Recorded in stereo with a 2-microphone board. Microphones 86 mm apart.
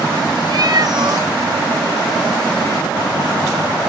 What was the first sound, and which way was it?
A cat meowing, 50° right (ahead or behind).